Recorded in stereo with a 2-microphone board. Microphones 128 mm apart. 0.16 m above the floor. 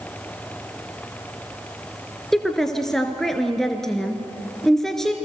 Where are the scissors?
No scissors in this recording.